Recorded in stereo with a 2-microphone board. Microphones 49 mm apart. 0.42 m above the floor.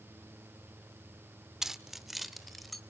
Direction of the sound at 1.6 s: 10° right (ahead or behind).